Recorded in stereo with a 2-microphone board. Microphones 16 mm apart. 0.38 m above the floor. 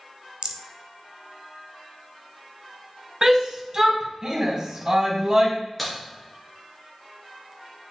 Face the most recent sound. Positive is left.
turn(degrees=-10)  # may be behind; listen again after turning